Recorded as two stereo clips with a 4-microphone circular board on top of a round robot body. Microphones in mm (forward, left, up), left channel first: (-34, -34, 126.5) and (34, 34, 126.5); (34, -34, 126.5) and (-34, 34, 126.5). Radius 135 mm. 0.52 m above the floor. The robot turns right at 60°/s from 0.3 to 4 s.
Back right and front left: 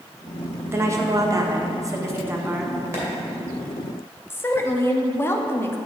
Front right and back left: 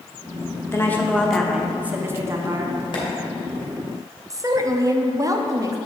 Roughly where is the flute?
No flute in this recording.